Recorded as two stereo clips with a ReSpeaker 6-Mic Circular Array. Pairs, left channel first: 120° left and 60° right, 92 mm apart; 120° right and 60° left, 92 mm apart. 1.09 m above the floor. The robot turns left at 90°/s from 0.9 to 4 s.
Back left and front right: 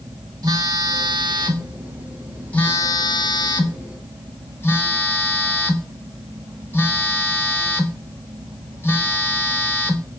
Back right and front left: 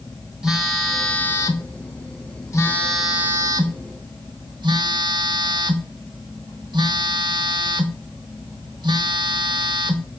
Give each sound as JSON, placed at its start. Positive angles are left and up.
{"t": 0.4, "sound": "a phone buzzing", "azimuth_deg": -25, "distance_m": 1.3}